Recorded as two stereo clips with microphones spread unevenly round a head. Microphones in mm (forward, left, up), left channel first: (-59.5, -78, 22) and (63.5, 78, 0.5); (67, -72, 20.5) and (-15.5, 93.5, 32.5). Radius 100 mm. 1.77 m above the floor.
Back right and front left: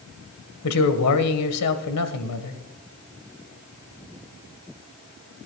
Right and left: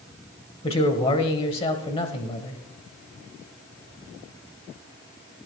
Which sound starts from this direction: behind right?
A man speaking, at 0.6 s.